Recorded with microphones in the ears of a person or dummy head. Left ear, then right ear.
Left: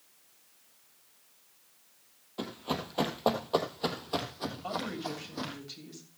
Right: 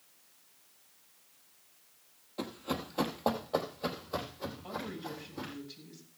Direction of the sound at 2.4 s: 5° left (ahead or behind).